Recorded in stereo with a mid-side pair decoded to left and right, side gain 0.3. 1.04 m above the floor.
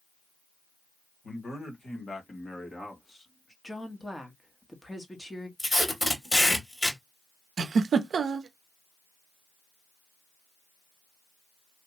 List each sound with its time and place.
1.2 s a man speaking: 60° left, 2.5 m; by 3.5 s 25° left, 2 m
3.6 s a woman speaking: 15° left, 1.7 m
5.6 s tape being pulled: 30° left, 2.5 m
7.6 s a giggle: 70° right, 0.6 m